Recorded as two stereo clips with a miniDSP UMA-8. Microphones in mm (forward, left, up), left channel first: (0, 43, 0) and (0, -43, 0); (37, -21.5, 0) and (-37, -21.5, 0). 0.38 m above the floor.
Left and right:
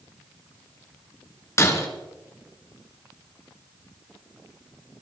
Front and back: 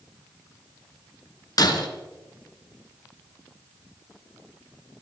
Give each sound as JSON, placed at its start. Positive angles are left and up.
{"t": 1.6, "sound": "breaking glass", "azimuth_deg": 35, "distance_m": 1.9}